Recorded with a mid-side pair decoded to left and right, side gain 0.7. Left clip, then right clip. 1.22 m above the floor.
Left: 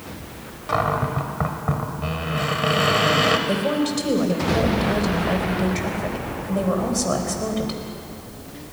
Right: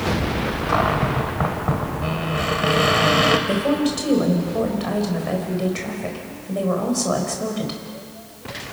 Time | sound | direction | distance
0.7 | a cupboard door | 5° right | 2.5 m
3.5 | a woman speaking | straight ahead | 4.5 m